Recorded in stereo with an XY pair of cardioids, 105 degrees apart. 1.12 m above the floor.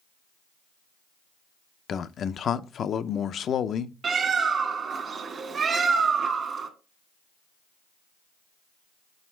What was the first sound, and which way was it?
A man speaking, 55° left.